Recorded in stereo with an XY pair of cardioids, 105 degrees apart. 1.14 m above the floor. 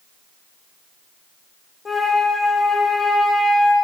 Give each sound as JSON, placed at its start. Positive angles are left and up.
{"t": 1.9, "sound": "a flute", "azimuth_deg": 25, "distance_m": 0.5}